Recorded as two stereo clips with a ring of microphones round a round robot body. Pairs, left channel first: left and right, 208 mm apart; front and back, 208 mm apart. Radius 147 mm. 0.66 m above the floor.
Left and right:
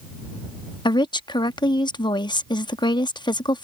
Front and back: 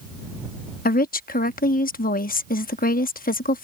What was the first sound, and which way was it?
A woman speaking, 25° left.